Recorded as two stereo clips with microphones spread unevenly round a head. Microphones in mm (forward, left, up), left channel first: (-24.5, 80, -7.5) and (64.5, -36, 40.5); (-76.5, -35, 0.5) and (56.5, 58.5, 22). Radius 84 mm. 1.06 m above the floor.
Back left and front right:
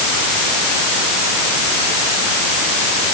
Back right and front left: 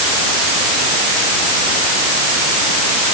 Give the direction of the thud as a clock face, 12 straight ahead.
No thud in this recording.